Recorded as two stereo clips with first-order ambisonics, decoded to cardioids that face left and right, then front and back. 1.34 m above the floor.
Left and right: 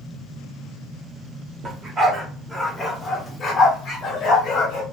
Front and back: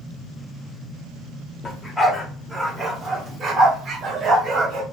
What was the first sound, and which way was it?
A dog barking, 70° right.